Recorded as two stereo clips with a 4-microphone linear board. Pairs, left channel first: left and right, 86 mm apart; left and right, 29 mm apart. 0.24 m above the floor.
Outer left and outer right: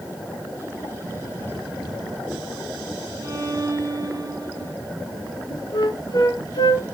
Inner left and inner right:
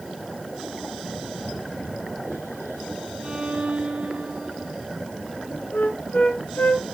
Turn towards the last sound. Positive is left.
turn(degrees=55)  # may be behind; listen again after turning